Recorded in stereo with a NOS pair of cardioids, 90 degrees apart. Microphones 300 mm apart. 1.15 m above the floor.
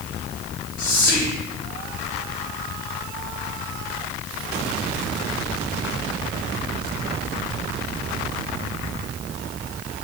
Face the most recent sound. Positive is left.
turn(degrees=55)